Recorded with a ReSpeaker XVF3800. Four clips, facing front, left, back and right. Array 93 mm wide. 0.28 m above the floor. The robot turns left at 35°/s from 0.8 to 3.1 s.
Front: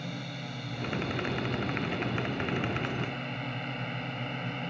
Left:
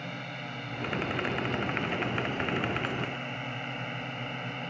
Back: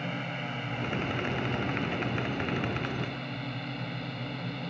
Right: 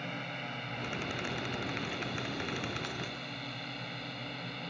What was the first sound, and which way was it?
A drone, 175° left.